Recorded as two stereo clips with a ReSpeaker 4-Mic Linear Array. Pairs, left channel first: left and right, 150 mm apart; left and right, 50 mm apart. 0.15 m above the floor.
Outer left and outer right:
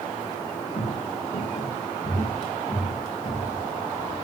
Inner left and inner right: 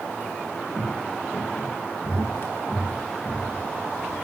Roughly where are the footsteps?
Left.